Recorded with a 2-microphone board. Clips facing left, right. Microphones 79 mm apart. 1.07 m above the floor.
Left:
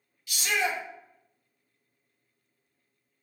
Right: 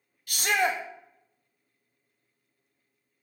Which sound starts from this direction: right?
A shout, at 0.3 s.